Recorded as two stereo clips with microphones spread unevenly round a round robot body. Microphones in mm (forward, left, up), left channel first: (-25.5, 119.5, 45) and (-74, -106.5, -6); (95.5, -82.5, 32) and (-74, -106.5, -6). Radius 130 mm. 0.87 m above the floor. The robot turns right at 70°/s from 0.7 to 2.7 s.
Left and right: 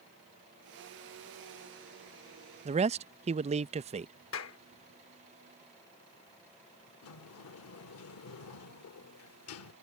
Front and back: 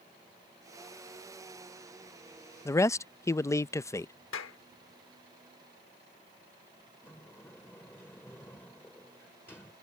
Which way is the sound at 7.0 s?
85° left.